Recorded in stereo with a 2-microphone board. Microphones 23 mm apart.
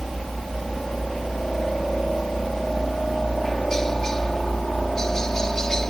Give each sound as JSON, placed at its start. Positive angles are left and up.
{"t": 0.0, "sound": "a helicopter", "side_deg": 15}